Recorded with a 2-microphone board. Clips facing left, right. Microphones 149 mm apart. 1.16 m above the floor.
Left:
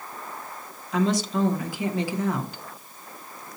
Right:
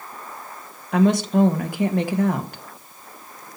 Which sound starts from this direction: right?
A woman speaking, at 0.9 s.